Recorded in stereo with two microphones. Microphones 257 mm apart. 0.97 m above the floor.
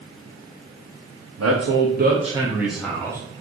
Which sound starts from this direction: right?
A man speaking, at 1.4 s.